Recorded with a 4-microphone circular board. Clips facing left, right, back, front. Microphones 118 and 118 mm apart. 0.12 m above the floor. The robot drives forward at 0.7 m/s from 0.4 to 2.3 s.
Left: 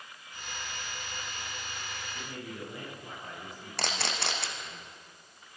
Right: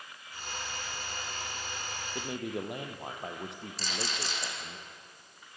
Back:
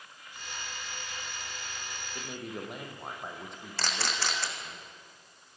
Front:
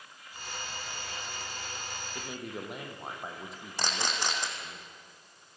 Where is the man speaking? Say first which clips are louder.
Right 9 dB, back 1 dB; 85° right, 3.5 m; by 4.8 s 90° right, 3.5 m.